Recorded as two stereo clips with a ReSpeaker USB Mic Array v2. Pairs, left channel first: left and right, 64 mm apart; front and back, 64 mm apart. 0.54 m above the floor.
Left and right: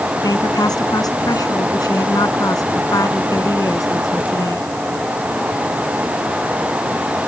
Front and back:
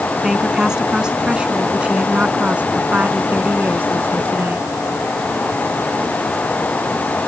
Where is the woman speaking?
100° left; by 4.7 s 120° left.